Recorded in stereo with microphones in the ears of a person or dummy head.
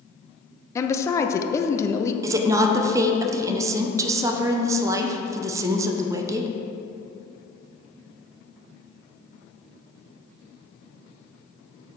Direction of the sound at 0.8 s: 20° left (ahead or behind).